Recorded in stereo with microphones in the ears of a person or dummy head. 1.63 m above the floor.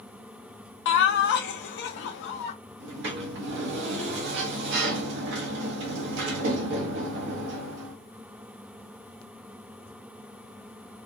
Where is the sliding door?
65° right (ahead or behind), 0.8 m.